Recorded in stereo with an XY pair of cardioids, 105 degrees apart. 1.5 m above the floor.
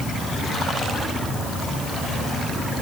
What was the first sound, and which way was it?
Only background noise.